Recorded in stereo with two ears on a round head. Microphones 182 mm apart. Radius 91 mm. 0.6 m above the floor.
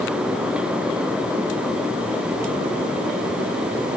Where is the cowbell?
No cowbell in this recording.